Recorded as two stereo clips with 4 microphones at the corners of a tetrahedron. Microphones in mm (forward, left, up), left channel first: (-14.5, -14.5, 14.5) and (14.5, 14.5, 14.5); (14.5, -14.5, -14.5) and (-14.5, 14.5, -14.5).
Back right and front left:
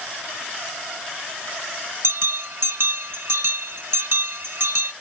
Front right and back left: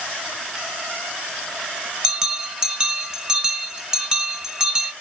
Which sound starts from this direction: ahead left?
A bell, at 2.0 s.